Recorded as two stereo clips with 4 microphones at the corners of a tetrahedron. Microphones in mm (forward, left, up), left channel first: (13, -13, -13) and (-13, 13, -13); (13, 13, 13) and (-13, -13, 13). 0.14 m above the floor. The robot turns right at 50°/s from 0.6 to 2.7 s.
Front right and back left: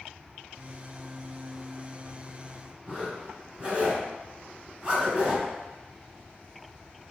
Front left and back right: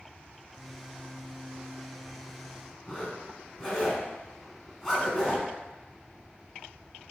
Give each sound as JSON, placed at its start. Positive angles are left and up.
{"t": 2.9, "sound": "a zipper", "azimuth_deg": 120, "distance_m": 1.1}